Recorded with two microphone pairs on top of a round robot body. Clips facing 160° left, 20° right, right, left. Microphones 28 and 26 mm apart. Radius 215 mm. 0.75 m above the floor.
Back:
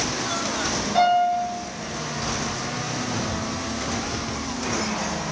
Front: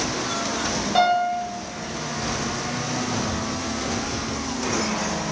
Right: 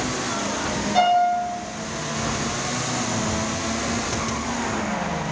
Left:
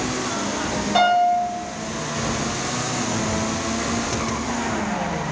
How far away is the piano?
About 1.6 m.